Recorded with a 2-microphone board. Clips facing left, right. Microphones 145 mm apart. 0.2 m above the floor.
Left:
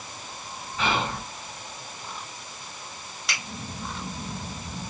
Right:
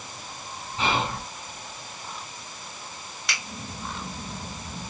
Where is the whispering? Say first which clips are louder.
Even; 25° right (ahead or behind), 2 m.